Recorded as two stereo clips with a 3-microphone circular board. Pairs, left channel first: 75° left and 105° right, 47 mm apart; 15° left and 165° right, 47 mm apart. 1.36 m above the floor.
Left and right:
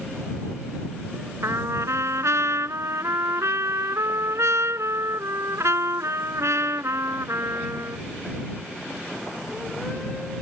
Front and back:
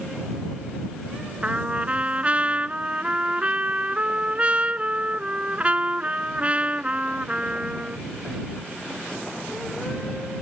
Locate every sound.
1.4 s a trumpet: 105° right